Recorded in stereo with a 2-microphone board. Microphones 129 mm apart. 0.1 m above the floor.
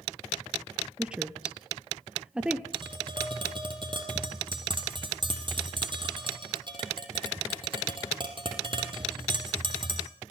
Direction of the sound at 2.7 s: 40° right (ahead or behind).